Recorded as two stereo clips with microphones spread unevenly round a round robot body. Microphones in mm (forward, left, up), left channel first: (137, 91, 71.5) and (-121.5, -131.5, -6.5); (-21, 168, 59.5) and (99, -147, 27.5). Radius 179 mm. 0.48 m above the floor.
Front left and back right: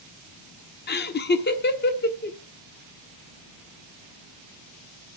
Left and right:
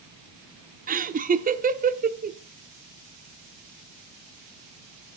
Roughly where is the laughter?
Ahead right.